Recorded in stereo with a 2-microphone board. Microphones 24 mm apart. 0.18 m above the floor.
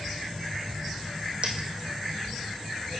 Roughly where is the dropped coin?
Right.